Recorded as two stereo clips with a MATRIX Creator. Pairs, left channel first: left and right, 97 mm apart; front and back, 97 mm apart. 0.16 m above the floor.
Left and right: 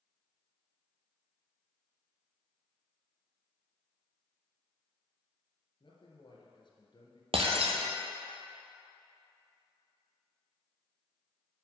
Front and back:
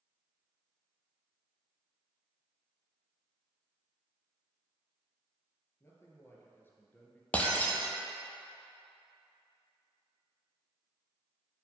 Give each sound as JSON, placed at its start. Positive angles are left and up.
{"t": 5.8, "sound": "a man speaking", "azimuth_deg": 60, "distance_m": 2.5}
{"t": 7.3, "sound": "breaking glass", "azimuth_deg": -75, "distance_m": 1.0}